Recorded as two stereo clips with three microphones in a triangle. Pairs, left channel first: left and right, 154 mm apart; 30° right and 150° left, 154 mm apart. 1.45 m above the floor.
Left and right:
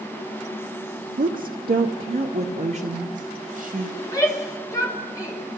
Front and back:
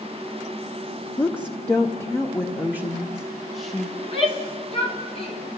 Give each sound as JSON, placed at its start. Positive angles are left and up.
{"t": 1.2, "sound": "a woman speaking", "azimuth_deg": -105, "distance_m": 0.8}
{"t": 4.0, "sound": "a shout", "azimuth_deg": 20, "distance_m": 5.0}